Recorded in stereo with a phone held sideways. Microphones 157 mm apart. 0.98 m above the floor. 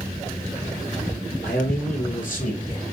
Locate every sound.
1.4 s a man speaking: 75° left (ahead or behind), 3.5 m; by 2.8 s 45° left (ahead or behind), 2 m